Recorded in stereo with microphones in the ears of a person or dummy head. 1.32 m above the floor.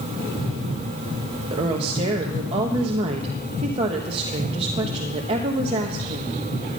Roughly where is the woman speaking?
Right.